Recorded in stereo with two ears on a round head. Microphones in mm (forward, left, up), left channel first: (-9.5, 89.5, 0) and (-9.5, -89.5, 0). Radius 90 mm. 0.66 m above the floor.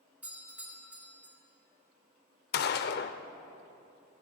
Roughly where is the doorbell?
Centre.